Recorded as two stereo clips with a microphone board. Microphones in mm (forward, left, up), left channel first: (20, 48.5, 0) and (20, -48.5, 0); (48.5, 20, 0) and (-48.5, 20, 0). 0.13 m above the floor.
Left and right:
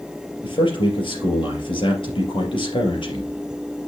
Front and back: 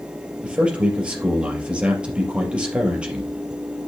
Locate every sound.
0.4 s a man speaking: 105° left, 3.5 m